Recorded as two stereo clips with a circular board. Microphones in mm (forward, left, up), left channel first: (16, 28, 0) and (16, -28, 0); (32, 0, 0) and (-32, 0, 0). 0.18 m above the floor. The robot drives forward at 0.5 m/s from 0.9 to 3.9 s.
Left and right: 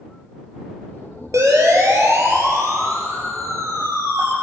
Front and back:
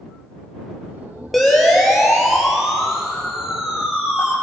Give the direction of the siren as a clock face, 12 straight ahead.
3 o'clock.